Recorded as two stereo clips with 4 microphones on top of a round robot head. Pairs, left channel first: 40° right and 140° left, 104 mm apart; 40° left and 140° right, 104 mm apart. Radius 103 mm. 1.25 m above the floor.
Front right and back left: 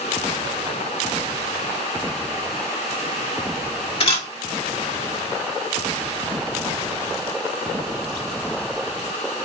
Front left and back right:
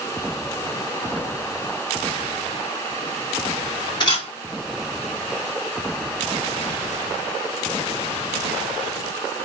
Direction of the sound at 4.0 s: 5° right.